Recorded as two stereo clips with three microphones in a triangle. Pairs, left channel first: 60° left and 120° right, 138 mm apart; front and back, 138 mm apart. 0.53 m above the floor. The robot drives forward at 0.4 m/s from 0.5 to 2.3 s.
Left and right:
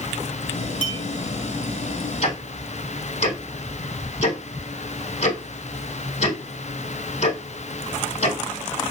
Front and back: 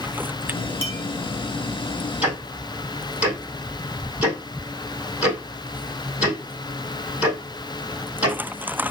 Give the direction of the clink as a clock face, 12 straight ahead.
2 o'clock.